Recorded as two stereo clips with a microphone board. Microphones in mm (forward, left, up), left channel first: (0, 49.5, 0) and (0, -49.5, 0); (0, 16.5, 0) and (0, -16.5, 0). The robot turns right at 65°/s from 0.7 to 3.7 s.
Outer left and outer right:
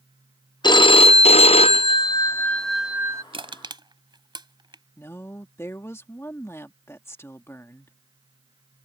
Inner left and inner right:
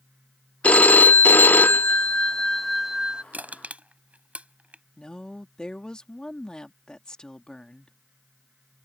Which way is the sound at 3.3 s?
65° right (ahead or behind).